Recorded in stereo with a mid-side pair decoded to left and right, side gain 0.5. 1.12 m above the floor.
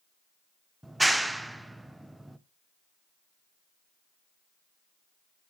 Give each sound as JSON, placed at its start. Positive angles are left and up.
{"t": 0.8, "sound": "a clap", "azimuth_deg": -5, "distance_m": 0.6}